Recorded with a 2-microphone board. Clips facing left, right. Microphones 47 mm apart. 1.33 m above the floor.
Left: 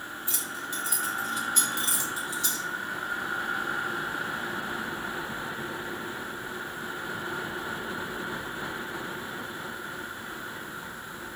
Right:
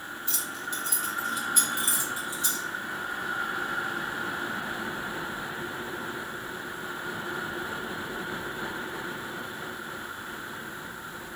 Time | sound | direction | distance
0.3 | keys jangling | 25° left (ahead or behind) | 1.3 m